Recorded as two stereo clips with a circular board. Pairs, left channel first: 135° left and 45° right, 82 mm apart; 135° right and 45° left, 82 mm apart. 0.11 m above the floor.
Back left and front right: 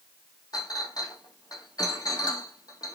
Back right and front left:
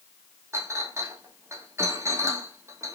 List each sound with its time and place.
0.5 s a clink: 100° left, 2.5 m